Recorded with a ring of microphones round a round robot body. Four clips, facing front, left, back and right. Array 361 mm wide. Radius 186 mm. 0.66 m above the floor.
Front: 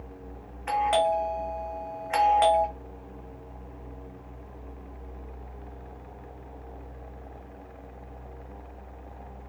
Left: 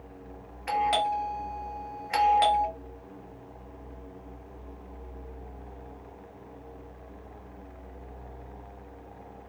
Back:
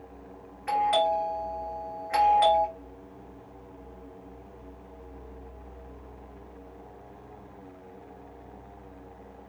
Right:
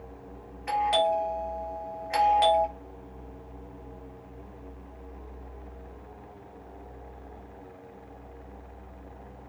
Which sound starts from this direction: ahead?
A doorbell, at 0.7 s.